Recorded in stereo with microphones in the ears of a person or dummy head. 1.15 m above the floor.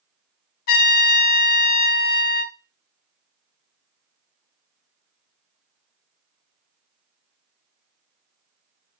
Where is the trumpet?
45° left (ahead or behind), 0.6 m.